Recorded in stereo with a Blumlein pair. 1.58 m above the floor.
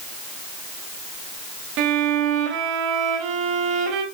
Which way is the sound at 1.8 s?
40° right.